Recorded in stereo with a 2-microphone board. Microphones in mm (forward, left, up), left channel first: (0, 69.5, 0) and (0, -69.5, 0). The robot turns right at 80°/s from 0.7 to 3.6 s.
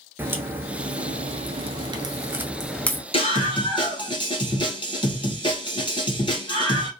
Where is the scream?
85° left, 1.7 m; by 6.9 s 120° left, 1.7 m.